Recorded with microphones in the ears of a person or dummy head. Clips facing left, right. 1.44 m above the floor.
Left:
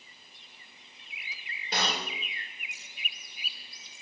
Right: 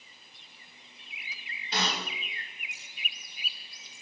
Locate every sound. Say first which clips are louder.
1.7 s a snare drum: even; 45° left (ahead or behind), 4 m